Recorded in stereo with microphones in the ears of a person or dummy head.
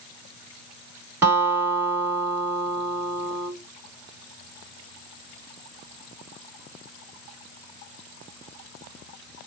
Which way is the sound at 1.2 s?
15° right (ahead or behind).